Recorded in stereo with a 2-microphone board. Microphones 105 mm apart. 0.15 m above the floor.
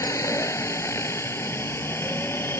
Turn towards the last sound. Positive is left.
turn(degrees=20)  # may be behind; listen again after turning